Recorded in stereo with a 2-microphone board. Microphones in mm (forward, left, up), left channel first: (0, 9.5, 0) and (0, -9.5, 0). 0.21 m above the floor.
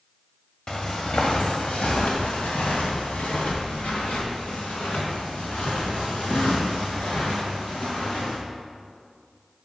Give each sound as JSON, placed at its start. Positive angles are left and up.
{"t": 0.7, "sound": "footsteps", "side_deg": 40, "distance_m": 1.4}